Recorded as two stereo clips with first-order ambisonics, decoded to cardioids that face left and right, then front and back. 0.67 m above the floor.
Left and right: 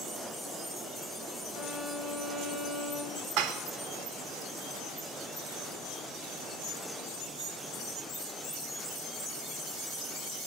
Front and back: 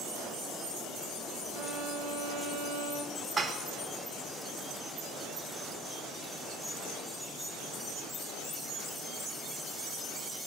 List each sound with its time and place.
1.5 s a violin: straight behind, 1.5 m
3.4 s dishes clattering: 110° right, 1.3 m